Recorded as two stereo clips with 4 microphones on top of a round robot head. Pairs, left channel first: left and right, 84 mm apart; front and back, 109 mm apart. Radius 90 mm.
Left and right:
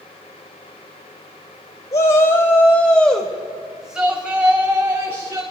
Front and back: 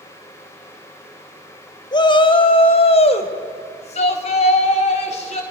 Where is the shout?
40° left, 2.5 m; by 5.4 s 25° right, 4.5 m.